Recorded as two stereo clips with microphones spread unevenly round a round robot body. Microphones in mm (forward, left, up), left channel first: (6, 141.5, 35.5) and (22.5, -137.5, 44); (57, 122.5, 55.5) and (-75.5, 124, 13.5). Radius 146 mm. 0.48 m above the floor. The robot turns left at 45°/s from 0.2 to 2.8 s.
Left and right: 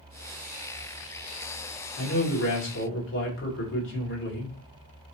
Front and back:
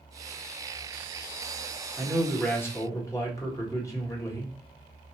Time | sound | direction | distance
2.0 | a man speaking | 115° left | 1.8 m